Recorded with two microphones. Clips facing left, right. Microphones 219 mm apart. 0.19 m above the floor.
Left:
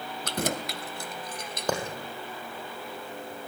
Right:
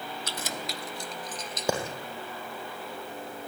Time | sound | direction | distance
0.2 | keys jangling | 60° left (ahead or behind) | 1.4 m
1.7 | a clap | 10° right (ahead or behind) | 5.5 m